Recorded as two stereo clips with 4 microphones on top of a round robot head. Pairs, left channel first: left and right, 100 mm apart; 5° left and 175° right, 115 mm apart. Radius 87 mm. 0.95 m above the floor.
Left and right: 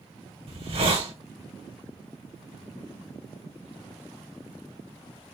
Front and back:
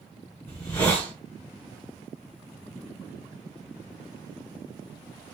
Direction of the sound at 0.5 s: 70° right.